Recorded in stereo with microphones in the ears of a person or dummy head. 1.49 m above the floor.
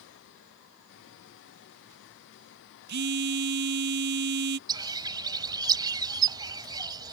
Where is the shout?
No shout in this recording.